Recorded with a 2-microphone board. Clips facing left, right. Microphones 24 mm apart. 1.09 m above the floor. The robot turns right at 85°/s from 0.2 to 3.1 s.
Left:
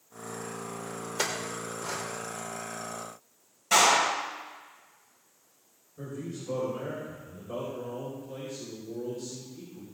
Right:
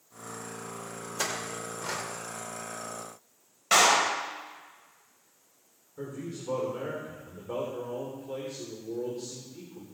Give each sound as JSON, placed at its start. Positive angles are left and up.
{"t": 1.2, "sound": "a clink", "side_deg": 35, "distance_m": 2.5}
{"t": 3.7, "sound": "a clap", "side_deg": -40, "distance_m": 4.0}
{"t": 6.0, "sound": "a man speaking", "side_deg": -80, "distance_m": 4.0}